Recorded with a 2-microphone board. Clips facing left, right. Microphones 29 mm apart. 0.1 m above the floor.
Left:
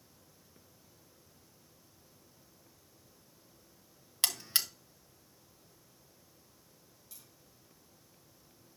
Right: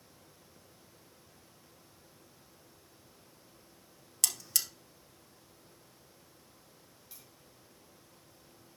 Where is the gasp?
No gasp in this recording.